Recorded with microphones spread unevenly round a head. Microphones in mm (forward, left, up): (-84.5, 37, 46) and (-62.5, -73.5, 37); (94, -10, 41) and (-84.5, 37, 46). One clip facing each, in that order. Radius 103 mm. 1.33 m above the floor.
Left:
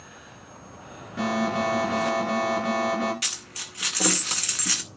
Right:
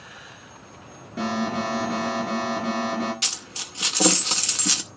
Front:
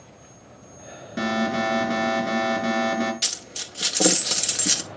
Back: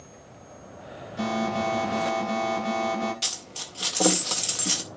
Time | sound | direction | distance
1.2 | an alarm | 5° right | 5 m
3.2 | a dropped coin | 55° right | 0.6 m